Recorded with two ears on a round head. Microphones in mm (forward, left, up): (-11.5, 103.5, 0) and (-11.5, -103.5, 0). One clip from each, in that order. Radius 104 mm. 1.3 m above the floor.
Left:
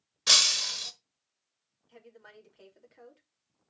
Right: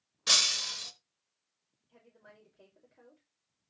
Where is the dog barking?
No dog barking in this recording.